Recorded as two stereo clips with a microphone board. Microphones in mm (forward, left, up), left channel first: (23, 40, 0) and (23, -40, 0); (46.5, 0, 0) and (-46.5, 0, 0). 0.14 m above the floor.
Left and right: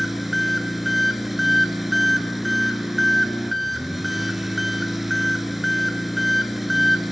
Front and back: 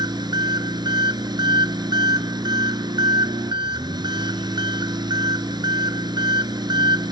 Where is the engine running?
175° right, 1.7 m.